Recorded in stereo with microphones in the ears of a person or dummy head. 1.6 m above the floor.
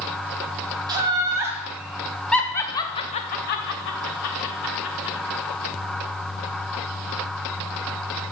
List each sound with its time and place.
0.9 s laughter: 20° right (ahead or behind), 1.9 m; by 5.2 s 85° left, 1.8 m